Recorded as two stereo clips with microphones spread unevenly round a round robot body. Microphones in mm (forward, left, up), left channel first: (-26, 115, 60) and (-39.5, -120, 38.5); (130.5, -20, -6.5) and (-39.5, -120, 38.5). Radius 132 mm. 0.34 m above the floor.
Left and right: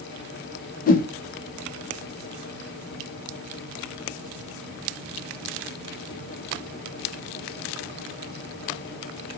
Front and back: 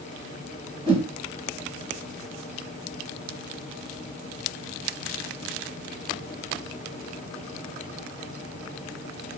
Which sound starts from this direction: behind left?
A whoosh, at 0.9 s.